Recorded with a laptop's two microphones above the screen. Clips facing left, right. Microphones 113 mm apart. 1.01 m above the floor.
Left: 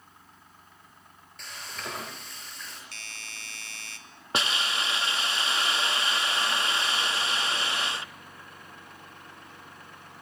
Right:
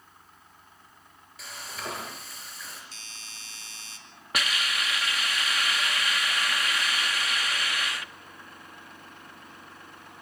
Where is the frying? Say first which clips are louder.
Right 1 dB; 5° right (ahead or behind), 5 m.